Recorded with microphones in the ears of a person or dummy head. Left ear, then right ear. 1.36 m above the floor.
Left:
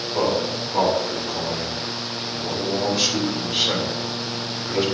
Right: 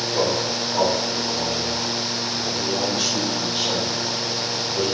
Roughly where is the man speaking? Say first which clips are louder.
Left 1 dB; centre.